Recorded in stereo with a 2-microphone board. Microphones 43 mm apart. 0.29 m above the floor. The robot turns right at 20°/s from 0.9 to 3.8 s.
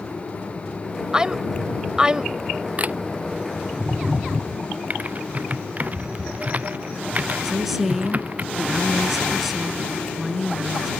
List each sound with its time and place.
1.1 s a woman speaking: 20° right (ahead or behind)
2.8 s a camera shutter: 35° right (ahead or behind); by 3.0 s 40° right (ahead or behind)
4.9 s typing on a keyboard: 35° right (ahead or behind)
7.4 s a woman speaking: 5° right (ahead or behind)